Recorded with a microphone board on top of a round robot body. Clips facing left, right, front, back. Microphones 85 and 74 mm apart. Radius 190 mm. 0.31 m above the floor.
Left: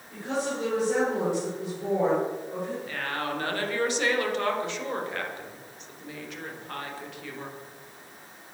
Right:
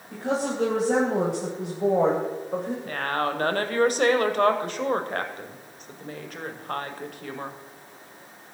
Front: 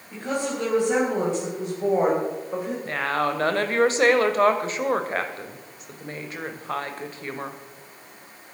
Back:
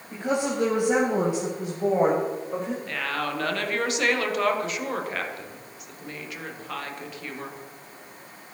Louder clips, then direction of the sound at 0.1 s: Right 3 dB, back 2 dB; 115° right.